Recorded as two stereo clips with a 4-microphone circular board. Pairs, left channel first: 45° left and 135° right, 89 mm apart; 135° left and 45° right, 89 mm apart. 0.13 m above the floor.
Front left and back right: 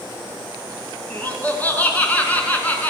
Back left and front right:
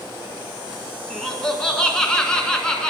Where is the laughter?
70° left, 1.3 m.